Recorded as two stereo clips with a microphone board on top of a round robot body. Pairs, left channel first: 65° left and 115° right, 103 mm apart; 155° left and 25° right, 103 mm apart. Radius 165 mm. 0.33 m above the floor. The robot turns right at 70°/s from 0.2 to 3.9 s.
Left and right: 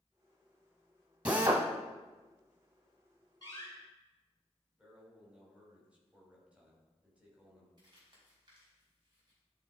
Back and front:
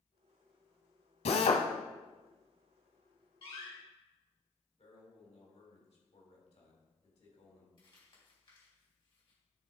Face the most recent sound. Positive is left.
turn(degrees=-160)